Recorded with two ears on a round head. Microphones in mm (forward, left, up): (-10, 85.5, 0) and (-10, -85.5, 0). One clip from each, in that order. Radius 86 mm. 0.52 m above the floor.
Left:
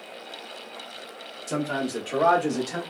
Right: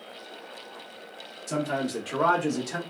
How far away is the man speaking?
About 1.2 m.